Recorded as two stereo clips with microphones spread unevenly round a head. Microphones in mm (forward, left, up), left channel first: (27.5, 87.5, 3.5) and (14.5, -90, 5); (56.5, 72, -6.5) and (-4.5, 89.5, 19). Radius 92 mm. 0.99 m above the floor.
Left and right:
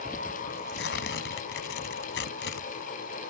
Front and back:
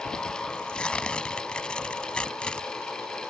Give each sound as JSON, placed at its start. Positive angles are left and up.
{"t": 0.5, "sound": "tearing paper", "azimuth_deg": 65}